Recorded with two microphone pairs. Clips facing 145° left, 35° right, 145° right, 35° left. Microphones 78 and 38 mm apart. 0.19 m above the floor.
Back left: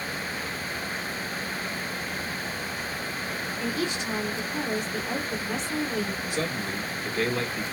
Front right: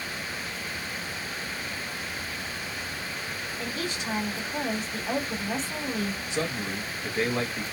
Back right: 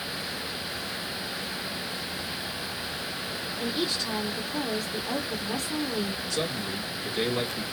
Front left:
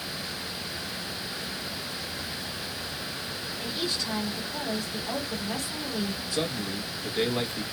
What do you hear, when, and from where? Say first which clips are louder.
3.6 s a woman speaking: back left 4 dB, back right 2 dB; 50° right, 1.8 m
6.3 s a man speaking: back left 1 dB, even; 20° right, 1.0 m